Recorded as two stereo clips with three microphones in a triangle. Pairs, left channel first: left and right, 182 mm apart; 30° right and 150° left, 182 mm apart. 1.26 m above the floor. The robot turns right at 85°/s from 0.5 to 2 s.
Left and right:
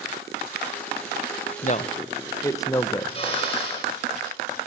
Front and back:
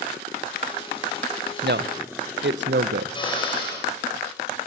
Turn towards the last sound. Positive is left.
turn(degrees=30)